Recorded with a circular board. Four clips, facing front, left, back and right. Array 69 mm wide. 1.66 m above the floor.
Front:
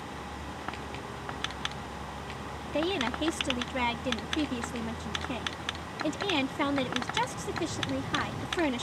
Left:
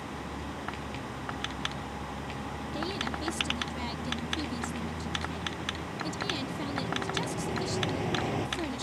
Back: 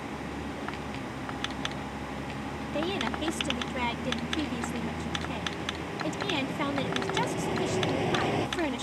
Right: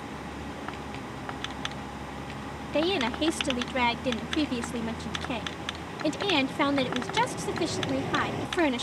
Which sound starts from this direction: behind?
A vehicle, at 0.0 s.